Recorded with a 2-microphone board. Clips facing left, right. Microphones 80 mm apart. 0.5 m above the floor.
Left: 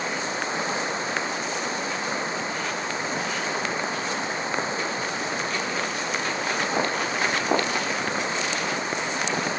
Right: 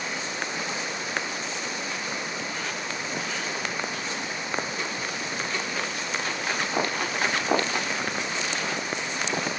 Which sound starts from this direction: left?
Running water, at 0.0 s.